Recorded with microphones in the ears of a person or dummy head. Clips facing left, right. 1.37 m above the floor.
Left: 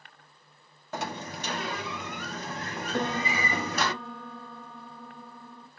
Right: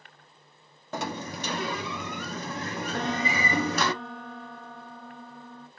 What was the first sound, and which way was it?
A sliding door, 75° right (ahead or behind).